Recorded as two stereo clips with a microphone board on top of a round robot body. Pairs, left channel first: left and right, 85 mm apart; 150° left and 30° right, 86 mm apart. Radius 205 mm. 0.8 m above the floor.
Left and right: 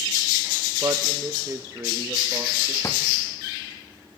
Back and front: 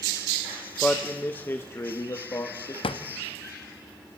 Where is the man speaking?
135° right, 1.2 m; by 2.7 s 160° right, 2.5 m.